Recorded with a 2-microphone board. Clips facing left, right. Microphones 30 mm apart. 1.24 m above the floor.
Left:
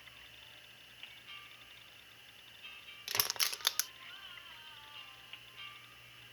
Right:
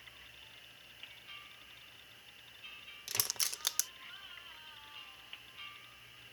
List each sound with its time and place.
3.1 s crushing: 25° left (ahead or behind)